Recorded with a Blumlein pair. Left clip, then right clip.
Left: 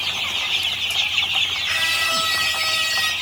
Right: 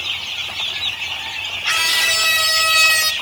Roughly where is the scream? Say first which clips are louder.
Right 3 dB; ahead right.